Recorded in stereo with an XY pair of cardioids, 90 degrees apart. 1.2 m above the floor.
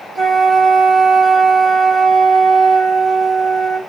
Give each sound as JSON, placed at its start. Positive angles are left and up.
{"t": 0.1, "sound": "a flute", "azimuth_deg": -25, "distance_m": 1.3}